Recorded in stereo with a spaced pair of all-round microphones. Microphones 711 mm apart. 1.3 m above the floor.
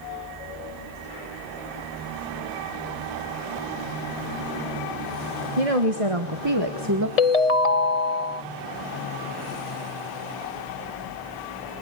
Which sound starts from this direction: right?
A woman speaking, at 5.6 s.